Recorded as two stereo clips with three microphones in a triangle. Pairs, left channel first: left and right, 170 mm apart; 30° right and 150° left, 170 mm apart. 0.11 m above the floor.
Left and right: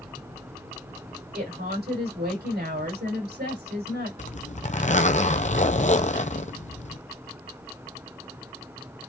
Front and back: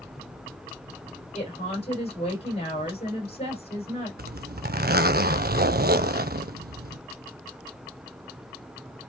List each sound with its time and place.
1.3 s a woman speaking: 85° right, 6 m
4.2 s a zipper: 130° left, 0.7 m